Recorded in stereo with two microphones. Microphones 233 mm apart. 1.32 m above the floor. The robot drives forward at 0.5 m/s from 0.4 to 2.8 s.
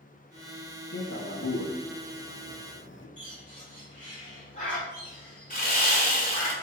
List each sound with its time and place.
0.9 s a man speaking: 50° left (ahead or behind), 1.0 m; by 3.1 s 55° left (ahead or behind), 0.9 m
3.2 s a bird: 30° left (ahead or behind), 3 m
5.5 s sawing: 35° left (ahead or behind), 1.8 m